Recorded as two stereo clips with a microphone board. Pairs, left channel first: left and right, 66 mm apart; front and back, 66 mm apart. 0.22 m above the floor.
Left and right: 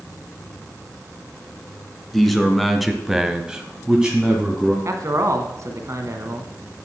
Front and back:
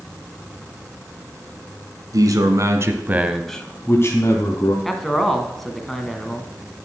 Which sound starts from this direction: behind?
A man speaking, at 2.1 s.